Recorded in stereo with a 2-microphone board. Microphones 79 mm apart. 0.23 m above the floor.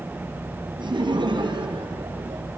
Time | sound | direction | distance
0.8 | laughter | 75° right (ahead or behind) | 5.5 m